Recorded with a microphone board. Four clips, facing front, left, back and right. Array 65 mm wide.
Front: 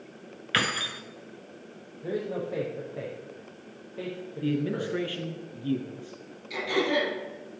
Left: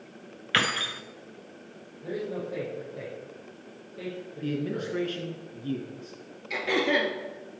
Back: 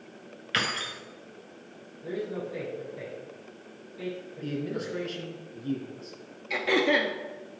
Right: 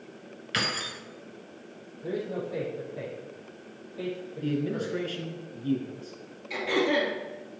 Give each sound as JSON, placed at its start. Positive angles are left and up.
{"t": 0.5, "sound": "keys jangling", "azimuth_deg": 65, "distance_m": 0.9}
{"t": 2.0, "sound": "a man speaking", "azimuth_deg": 0, "distance_m": 4.0}
{"t": 4.4, "sound": "a man speaking", "azimuth_deg": 5, "distance_m": 1.9}
{"t": 6.5, "sound": "throat clearing", "azimuth_deg": 160, "distance_m": 2.0}